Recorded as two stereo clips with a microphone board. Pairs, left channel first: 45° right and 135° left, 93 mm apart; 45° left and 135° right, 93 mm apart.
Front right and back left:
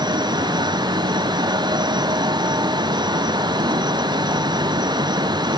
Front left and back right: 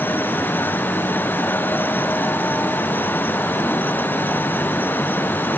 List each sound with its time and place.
Only background noise.